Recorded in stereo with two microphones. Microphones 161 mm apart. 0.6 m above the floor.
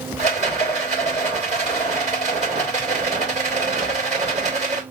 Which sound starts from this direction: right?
A rattle, at 0.2 s.